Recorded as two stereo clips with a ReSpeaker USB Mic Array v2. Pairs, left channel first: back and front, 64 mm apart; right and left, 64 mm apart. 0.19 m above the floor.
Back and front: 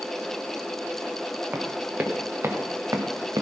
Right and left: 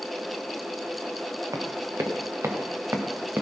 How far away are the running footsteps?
About 2.5 m.